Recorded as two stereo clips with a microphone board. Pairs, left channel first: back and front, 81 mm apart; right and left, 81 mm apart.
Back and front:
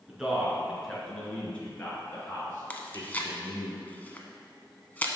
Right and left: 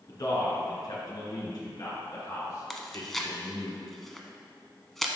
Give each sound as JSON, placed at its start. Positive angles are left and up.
{"t": 0.1, "sound": "a man speaking", "azimuth_deg": -80, "distance_m": 2.5}
{"t": 2.7, "sound": "chewing", "azimuth_deg": -170, "distance_m": 0.7}